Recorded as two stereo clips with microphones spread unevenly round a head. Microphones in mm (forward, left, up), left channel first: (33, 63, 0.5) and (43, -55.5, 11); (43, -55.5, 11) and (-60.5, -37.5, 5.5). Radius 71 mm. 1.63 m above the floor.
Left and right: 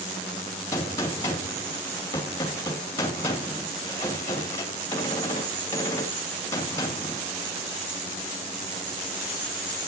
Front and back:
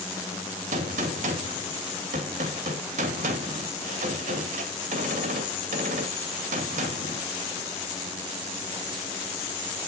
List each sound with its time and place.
0.7 s a gunshot: 170° left, 2 m